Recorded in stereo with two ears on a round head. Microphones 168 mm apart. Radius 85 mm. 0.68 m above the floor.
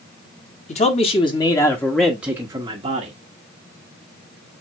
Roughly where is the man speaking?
Left.